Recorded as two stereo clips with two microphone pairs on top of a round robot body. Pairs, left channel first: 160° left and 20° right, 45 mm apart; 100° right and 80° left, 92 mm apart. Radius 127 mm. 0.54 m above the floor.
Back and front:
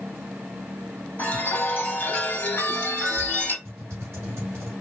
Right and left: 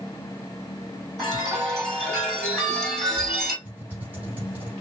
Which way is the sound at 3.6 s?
10° left.